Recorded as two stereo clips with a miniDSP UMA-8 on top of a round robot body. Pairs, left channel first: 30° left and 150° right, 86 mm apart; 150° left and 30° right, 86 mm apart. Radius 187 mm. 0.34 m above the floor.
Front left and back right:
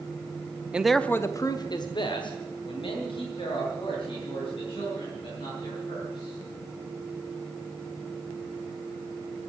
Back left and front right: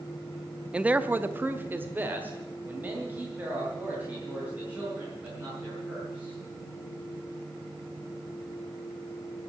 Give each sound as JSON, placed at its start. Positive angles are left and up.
{"t": 0.7, "sound": "a man speaking", "azimuth_deg": -90, "distance_m": 0.9}